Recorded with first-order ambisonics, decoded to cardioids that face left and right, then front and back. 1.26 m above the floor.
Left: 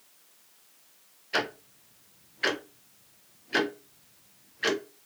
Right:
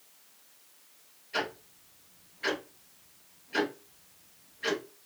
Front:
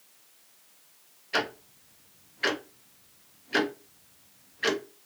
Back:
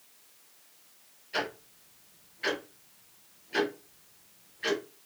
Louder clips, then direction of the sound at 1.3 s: Left 4 dB, front 4 dB; 50° left.